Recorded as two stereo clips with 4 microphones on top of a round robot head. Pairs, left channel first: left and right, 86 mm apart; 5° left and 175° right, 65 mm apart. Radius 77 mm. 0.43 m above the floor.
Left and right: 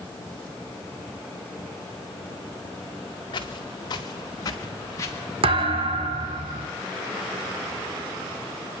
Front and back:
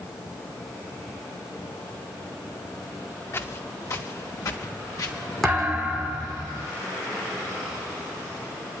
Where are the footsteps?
55° left, 3.5 m; by 5.2 s 35° left, 3.5 m.